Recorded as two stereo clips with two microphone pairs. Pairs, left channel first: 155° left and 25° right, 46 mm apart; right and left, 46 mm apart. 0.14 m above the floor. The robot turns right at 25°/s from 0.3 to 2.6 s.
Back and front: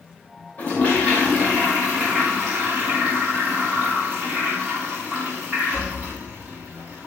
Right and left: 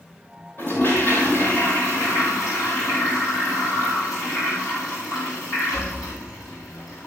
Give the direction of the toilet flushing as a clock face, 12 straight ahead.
5 o'clock.